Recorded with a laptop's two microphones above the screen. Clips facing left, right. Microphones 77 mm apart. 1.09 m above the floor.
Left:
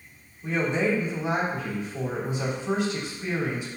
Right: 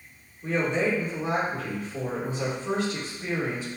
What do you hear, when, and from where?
0.4 s a woman speaking: 40° right (ahead or behind), 3 m